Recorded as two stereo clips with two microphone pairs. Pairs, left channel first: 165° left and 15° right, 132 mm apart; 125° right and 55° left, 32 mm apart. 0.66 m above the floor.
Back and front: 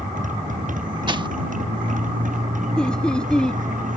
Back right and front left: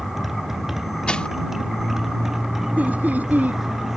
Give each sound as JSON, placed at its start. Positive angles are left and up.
{"t": 0.0, "sound": "a motorcycle", "azimuth_deg": -25}
{"t": 1.1, "sound": "crushing", "azimuth_deg": -65}
{"t": 2.8, "sound": "laughter", "azimuth_deg": 85}